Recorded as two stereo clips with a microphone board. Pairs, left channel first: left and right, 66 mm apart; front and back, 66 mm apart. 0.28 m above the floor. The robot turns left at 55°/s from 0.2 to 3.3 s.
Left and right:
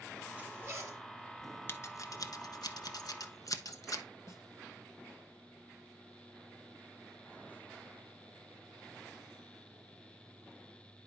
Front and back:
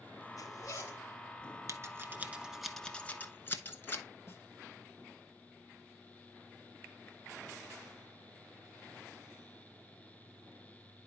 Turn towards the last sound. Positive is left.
turn(degrees=55)